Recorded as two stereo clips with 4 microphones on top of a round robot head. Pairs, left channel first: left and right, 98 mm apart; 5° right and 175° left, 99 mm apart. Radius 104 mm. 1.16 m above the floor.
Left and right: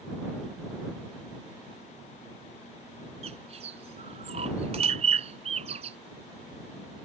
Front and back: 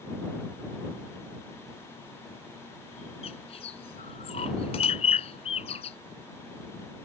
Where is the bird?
50° right.